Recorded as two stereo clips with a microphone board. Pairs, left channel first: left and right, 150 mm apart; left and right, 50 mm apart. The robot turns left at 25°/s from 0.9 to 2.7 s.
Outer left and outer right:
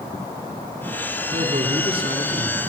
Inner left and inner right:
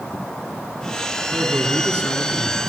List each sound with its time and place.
1.3 s a man speaking: 120° right, 3 m; by 2.6 s 155° right, 3 m